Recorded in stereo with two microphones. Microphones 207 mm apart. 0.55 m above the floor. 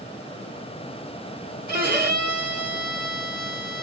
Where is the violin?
50° right (ahead or behind), 3 m.